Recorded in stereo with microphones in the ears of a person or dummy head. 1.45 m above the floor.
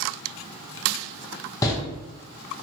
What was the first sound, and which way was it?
A door slam, 20° left (ahead or behind).